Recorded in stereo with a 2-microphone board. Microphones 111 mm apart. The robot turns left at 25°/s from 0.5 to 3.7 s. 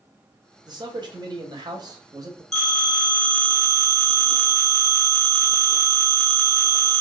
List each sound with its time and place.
0.7 s a man speaking: 75° right, 0.8 m; by 2.4 s 120° right, 0.8 m
2.5 s a phone ringing: centre (ahead or behind), 1.2 m; by 7.0 s 25° right (ahead or behind), 1.2 m